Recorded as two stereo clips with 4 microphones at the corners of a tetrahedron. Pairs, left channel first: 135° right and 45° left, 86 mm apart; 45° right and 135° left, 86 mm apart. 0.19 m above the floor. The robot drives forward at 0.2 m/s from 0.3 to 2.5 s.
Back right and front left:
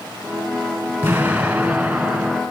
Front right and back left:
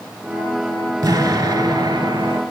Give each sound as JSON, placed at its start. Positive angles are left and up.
{"t": 1.0, "sound": "an explosion", "azimuth_deg": 105, "distance_m": 0.9}